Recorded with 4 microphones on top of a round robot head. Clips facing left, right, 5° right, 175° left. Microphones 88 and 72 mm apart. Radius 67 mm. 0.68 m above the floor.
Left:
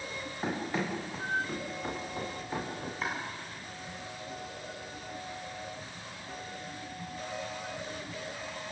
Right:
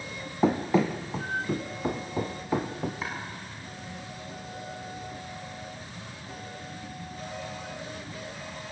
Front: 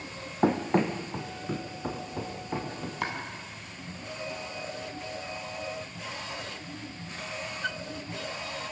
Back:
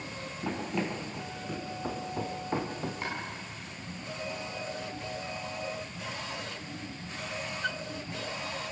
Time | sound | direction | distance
0.4 | running footsteps | 60° right | 2.5 m
3.0 | chopping | 5° right | 7.5 m